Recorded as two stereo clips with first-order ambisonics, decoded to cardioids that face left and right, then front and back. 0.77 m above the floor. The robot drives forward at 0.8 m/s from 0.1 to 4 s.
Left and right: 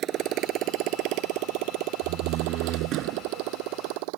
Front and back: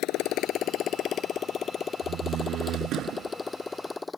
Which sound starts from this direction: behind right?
A door slam, at 2.0 s.